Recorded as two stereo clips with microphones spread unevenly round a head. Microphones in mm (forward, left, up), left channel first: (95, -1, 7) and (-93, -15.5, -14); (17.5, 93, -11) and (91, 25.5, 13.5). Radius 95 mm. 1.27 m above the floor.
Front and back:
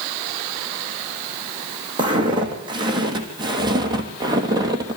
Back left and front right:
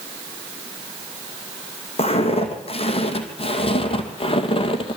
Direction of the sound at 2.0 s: 115° left.